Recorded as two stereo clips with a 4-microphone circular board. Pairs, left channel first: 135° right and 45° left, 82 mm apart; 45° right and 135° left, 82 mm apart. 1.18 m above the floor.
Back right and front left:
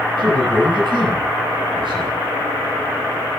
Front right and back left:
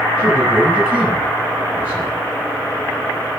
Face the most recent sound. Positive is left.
turn(degrees=60)